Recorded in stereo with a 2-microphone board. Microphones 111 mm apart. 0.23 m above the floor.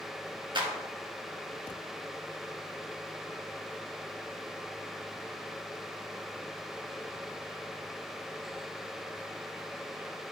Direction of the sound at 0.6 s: 45° right (ahead or behind).